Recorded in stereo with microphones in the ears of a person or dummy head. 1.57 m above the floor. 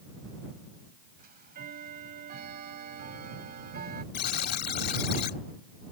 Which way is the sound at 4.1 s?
55° left (ahead or behind).